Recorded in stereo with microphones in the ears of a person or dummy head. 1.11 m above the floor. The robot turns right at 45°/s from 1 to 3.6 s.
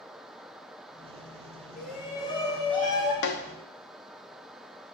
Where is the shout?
120° left, 2 m; by 3.1 s straight behind, 2 m.